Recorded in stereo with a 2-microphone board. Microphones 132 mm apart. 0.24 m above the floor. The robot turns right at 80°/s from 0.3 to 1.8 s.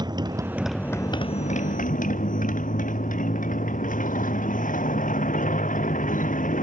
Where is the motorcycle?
30° right; by 6.6 s 90° left.